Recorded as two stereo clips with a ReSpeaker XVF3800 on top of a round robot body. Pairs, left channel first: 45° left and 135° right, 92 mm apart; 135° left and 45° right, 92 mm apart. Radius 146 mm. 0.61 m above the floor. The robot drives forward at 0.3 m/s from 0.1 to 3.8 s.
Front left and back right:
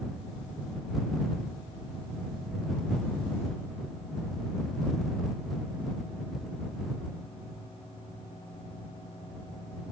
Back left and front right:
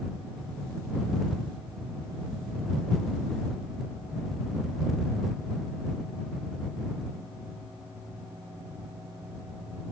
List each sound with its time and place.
Only background noise.